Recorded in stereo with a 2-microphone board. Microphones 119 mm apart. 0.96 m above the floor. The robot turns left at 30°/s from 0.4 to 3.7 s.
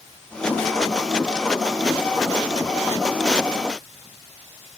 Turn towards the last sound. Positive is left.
No sound to turn to.